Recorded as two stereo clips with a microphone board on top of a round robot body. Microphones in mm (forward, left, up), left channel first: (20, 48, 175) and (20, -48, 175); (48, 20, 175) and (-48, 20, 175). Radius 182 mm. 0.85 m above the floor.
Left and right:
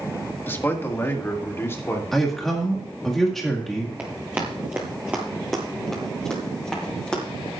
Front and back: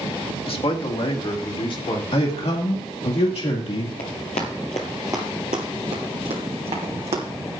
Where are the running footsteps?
15° right, 1.4 m; by 7.2 s 170° left, 2.5 m.